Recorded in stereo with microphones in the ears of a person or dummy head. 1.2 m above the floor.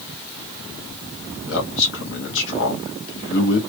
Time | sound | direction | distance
1.5 | a man speaking | 70° left (ahead or behind) | 1.5 m